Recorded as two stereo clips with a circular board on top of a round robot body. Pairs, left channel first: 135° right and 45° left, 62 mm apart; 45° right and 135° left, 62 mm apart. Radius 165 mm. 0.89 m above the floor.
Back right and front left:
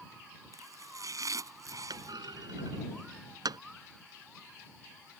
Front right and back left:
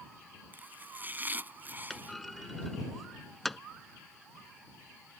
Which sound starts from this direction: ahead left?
A clunk, at 1.9 s.